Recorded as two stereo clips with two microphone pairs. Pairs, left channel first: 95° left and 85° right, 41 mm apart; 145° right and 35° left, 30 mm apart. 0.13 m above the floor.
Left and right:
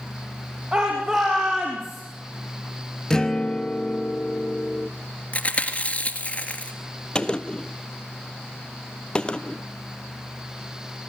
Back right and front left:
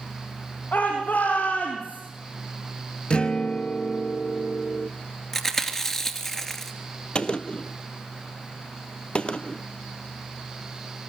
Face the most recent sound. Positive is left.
turn(degrees=165)